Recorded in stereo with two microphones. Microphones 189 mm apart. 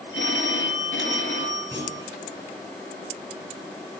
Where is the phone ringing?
80° left, 4.5 m.